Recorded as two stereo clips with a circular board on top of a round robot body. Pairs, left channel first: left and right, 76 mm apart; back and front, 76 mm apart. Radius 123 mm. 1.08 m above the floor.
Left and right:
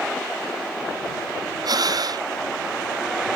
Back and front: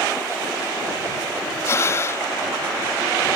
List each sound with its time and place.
1.6 s breathing: 125° right